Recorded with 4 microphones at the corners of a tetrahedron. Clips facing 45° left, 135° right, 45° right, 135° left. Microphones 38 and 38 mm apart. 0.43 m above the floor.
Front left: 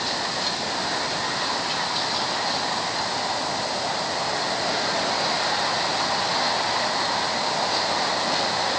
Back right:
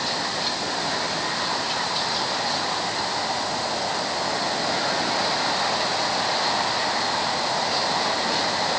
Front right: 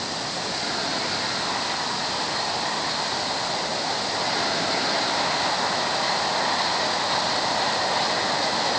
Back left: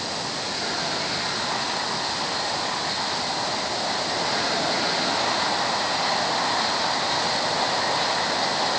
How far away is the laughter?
I don't hear laughter.